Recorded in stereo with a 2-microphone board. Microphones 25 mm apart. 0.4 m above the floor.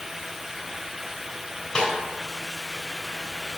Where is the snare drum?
40° left (ahead or behind), 3 m.